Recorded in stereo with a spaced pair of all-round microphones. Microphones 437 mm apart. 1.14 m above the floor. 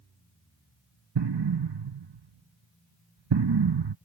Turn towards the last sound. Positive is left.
turn(degrees=-65)  # may be behind; listen again after turning